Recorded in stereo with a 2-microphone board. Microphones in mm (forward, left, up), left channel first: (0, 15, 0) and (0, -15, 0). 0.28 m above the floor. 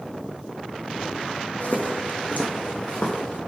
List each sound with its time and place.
1.6 s footsteps: 60° left (ahead or behind), 0.7 m; by 3.4 s 80° left, 1.5 m